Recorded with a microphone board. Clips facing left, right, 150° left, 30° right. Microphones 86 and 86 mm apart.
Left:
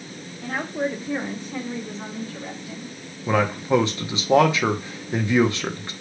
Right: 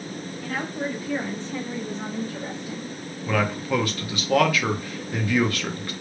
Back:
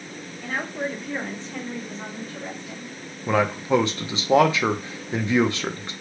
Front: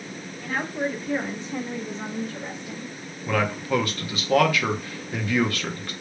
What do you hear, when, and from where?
0.4 s a woman speaking: 70° left, 1.6 m; by 2.9 s 95° right, 1.6 m
3.3 s a man speaking: 120° left, 0.6 m